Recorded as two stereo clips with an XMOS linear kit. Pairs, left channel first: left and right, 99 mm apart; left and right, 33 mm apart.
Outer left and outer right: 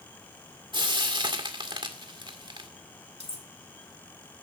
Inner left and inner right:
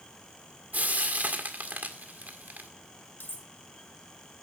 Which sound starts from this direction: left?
Cutlery clinking, at 3.2 s.